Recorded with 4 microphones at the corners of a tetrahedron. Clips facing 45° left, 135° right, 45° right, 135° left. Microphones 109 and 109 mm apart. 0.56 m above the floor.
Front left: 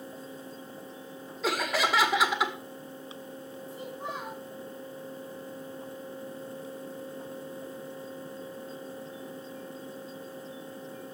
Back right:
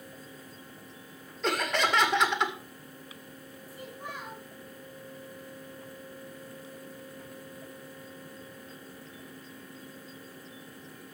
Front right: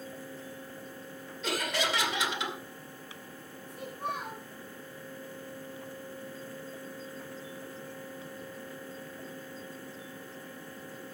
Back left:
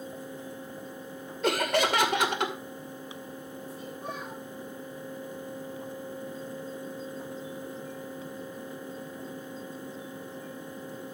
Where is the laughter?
130° left, 2 m.